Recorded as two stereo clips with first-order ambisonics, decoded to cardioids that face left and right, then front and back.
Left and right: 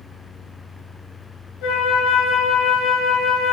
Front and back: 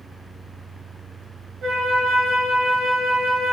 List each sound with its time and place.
1.6 s a flute: 110° left, 0.8 m